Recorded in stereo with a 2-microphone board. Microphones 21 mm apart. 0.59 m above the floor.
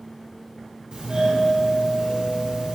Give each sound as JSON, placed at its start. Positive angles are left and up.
{"t": 0.9, "sound": "a doorbell", "side_deg": -45, "distance_m": 2.0}